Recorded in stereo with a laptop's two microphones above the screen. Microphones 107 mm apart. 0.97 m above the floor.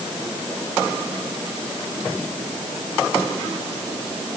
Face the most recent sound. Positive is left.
No sound to turn to.